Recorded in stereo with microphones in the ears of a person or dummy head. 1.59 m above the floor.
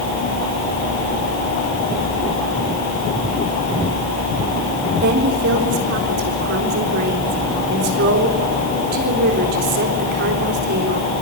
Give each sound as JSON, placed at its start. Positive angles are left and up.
{"t": 5.0, "sound": "a woman speaking", "side_deg": -60, "distance_m": 3.5}